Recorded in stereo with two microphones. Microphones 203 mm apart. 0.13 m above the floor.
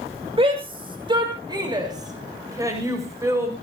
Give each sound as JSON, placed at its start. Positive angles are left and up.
{"t": 0.4, "sound": "a shout", "side_deg": -25, "distance_m": 6.0}